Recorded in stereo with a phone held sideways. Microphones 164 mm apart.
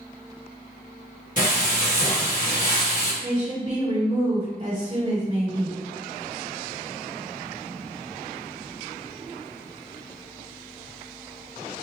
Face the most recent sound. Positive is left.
turn(degrees=-35)  # may be behind; listen again after turning